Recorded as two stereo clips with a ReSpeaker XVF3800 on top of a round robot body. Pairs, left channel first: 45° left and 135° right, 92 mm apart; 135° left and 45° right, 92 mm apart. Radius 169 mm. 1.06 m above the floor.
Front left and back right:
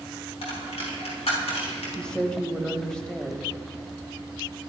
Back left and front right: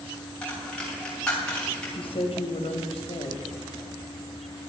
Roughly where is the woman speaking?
Behind left.